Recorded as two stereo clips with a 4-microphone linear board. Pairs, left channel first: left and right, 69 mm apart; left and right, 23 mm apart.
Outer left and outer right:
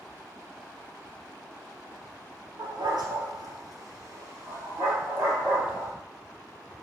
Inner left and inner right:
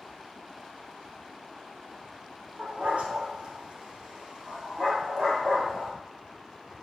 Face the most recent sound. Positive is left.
turn(degrees=-15)  # may be behind; listen again after turning